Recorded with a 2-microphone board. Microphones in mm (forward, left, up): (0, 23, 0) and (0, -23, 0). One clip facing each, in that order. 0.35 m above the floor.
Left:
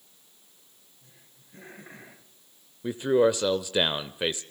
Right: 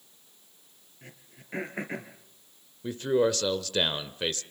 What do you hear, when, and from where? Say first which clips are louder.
1.0 s throat clearing: right 11 dB; 75° right (ahead or behind), 4 m
2.8 s a man speaking: left 3 dB; 15° left (ahead or behind), 0.8 m